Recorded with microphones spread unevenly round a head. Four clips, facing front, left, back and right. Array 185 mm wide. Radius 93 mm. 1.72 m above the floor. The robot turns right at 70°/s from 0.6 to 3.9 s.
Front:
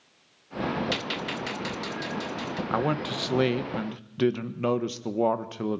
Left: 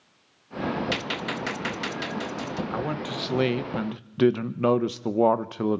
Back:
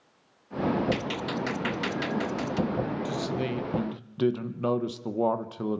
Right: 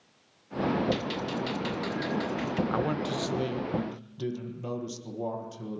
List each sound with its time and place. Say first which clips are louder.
0.9 s a gunshot: even, back 2 dB; 60° left, 0.8 m; by 2.6 s straight behind, 0.8 m
2.7 s a man speaking: right 1 dB, front 3 dB; 5° right, 1.3 m; by 5.8 s 75° left, 1.3 m